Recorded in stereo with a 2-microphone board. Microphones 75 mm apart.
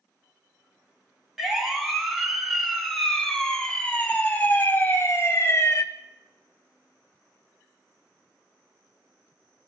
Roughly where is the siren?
Centre.